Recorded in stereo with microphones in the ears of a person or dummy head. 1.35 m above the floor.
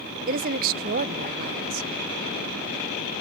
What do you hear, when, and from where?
0.3 s a woman speaking: 50° right (ahead or behind), 0.6 m